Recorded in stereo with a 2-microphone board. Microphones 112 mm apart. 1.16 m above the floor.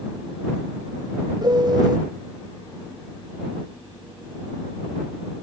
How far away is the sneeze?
I don't hear a sneeze.